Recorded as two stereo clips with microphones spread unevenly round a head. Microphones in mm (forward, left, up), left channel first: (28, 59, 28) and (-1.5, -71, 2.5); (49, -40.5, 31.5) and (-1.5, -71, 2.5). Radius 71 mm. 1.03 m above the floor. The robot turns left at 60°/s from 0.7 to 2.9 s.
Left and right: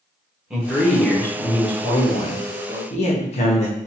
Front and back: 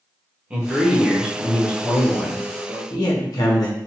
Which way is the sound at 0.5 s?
170° right.